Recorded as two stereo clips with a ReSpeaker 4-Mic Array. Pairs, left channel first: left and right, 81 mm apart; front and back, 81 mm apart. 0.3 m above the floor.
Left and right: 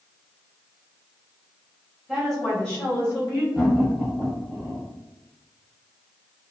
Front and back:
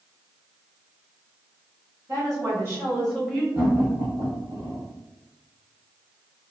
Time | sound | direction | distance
2.1 | a woman speaking | 175° right | 1.7 m
3.5 | laughter | straight behind | 1.1 m